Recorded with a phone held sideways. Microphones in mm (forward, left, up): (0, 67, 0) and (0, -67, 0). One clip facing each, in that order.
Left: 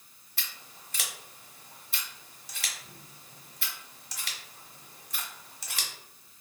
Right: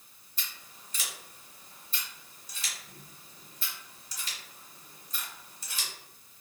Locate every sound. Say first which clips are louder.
0.4 s scissors: left 1 dB; 70° left (ahead or behind), 0.8 m